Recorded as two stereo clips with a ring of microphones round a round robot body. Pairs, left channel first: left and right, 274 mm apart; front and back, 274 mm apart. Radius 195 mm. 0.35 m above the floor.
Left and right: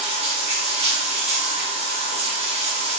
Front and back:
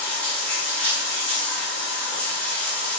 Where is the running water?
80° right, 0.8 m.